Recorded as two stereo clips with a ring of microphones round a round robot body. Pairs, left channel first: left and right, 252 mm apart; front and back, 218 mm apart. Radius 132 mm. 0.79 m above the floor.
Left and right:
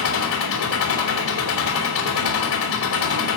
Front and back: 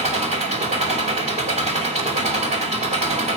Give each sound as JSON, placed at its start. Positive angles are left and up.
{"t": 0.0, "sound": "an engine running", "azimuth_deg": 120, "distance_m": 2.5}